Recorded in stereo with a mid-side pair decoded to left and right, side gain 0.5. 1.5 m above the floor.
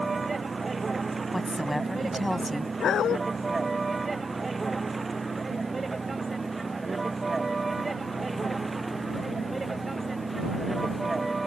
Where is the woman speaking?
5° left.